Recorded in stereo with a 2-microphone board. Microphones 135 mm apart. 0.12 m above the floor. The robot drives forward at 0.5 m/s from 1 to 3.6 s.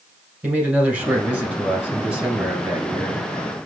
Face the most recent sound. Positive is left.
turn(degrees=-5)  # may be behind; listen again after turning